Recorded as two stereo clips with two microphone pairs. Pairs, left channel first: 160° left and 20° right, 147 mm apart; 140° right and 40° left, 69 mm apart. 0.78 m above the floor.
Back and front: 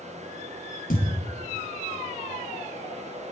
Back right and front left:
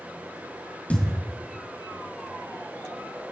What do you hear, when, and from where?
0.9 s a thud: 150° left, 2.5 m